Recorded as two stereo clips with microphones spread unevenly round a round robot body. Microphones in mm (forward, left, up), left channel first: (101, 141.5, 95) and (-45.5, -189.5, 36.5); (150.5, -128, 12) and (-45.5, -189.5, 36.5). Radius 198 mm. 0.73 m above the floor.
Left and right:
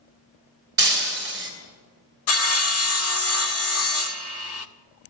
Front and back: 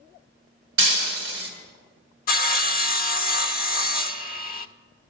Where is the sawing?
15° left, 0.7 m.